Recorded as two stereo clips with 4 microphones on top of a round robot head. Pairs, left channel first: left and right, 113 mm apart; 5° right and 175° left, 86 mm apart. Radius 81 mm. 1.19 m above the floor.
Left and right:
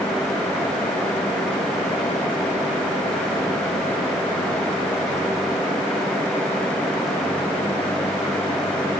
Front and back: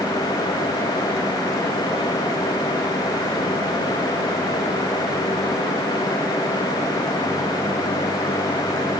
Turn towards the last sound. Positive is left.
No sound to turn to.